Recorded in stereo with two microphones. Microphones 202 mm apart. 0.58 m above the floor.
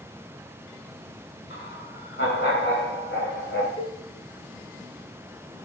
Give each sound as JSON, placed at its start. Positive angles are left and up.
{"t": 1.5, "sound": "laughter", "side_deg": 60, "distance_m": 6.5}
{"t": 3.8, "sound": "a cowbell", "side_deg": 25, "distance_m": 2.0}